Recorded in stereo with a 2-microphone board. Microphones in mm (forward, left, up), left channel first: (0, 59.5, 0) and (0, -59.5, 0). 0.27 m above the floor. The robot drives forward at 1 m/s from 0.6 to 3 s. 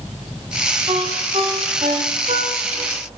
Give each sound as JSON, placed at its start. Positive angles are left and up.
{"t": 0.9, "sound": "a ringtone", "side_deg": -55, "distance_m": 7.5}